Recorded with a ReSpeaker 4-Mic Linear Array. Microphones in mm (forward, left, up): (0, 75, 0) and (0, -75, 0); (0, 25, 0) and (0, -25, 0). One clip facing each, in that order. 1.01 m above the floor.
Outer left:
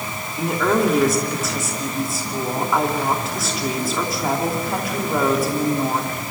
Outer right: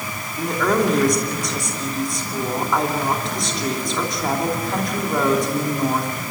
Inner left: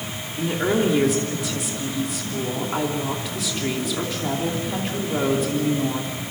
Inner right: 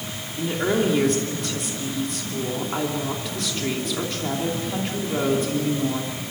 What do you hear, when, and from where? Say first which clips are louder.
0.4 s a woman speaking: outer left 1 dB, inner left 1 dB; 5° left (ahead or behind), 3 m